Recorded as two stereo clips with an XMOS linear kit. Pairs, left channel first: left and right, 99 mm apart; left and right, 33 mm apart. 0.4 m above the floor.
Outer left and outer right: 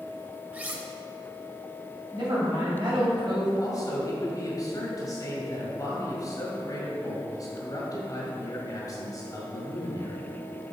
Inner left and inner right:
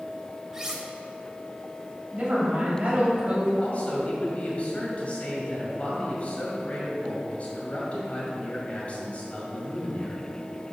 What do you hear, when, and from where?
0.5 s cutlery clinking: 15° right (ahead or behind), 0.9 m
2.1 s a woman speaking: 45° right (ahead or behind), 2.5 m
3.6 s a man speaking: 40° left (ahead or behind), 1.7 m